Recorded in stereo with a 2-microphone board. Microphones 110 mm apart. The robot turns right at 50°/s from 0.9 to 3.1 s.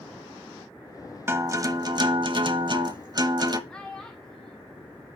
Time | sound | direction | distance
1.3 | a guitar | 150° right | 0.7 m
3.7 | a child speaking | 10° left (ahead or behind) | 0.6 m